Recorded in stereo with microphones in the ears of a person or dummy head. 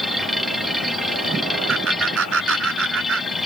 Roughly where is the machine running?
Centre.